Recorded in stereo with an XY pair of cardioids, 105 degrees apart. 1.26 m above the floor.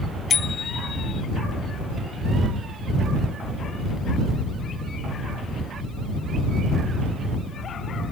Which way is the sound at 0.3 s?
45° left.